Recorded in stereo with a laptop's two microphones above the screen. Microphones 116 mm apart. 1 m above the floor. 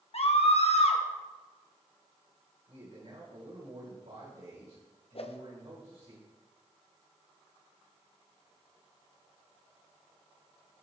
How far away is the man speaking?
About 4.5 m.